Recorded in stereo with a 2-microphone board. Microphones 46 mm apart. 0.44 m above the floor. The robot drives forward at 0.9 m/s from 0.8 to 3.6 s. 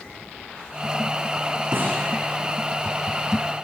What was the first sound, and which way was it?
A snare drum, 50° right (ahead or behind).